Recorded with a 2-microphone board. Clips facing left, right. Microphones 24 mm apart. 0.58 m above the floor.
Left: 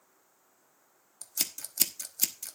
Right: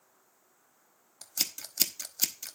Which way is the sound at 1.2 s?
20° right (ahead or behind).